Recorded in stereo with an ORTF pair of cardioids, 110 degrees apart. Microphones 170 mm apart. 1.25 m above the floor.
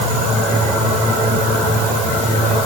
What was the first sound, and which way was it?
Only background noise.